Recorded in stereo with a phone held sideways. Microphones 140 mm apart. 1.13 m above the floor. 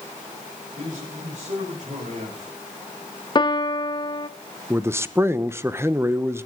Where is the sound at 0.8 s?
65° right (ahead or behind), 4 m; by 2.6 s 70° right (ahead or behind), 6 m.